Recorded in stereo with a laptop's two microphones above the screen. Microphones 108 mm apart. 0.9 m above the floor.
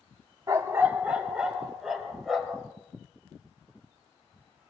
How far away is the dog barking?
About 0.7 m.